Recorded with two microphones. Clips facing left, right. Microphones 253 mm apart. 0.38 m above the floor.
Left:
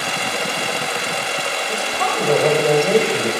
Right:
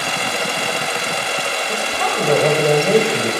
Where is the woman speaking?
5° right (ahead or behind), 1.6 m.